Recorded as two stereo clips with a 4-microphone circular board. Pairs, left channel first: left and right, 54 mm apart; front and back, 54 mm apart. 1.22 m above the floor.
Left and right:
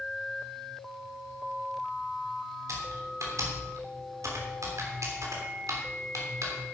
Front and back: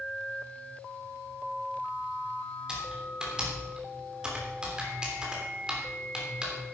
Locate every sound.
2.7 s typing on a keyboard: 105° right, 3 m